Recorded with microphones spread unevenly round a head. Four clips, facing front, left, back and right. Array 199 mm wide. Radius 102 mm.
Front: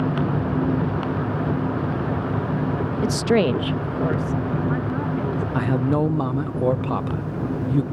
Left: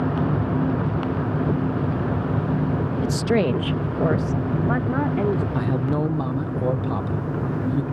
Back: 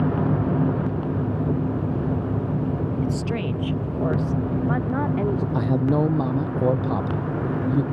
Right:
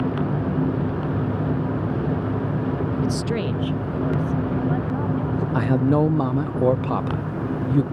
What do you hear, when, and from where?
3.0 s a woman speaking: straight ahead; by 5.4 s 105° left
5.5 s a man speaking: 90° right